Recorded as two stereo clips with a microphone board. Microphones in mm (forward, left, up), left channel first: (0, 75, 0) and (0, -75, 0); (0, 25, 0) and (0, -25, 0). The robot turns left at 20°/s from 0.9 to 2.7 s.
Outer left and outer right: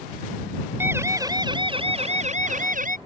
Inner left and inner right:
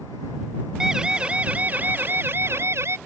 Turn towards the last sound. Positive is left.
turn(degrees=-60)  # may be behind; listen again after turning